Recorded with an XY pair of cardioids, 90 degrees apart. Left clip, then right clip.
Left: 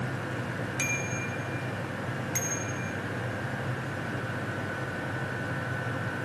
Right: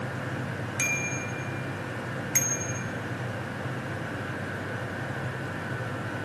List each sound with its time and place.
0.8 s a bicycle bell: 30° right, 5 m; by 2.8 s 60° right, 4.5 m